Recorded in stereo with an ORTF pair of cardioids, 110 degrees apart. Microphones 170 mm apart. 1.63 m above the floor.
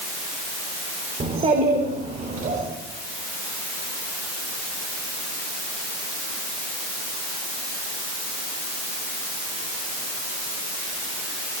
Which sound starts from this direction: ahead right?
A child speaking, at 1.2 s.